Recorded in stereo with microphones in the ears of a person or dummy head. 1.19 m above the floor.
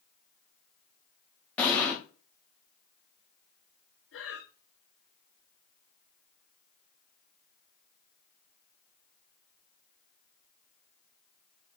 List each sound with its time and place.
1.6 s an explosion: 5° left (ahead or behind), 1.0 m
4.1 s breathing: 65° left (ahead or behind), 3.5 m